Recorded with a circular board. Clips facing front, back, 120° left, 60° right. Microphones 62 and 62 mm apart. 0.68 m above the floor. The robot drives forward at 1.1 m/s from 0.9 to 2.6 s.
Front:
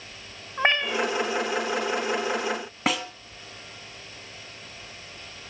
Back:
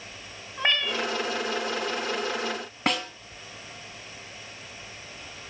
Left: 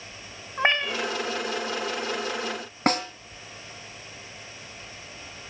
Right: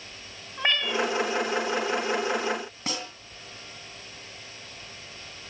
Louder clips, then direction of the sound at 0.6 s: Front 3 dB, left 2 dB; 60° left.